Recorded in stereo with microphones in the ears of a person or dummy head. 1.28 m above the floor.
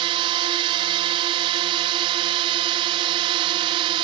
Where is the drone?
25° right (ahead or behind).